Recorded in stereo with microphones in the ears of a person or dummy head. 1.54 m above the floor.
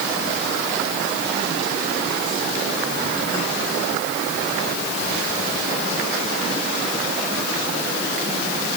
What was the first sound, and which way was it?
Only background noise.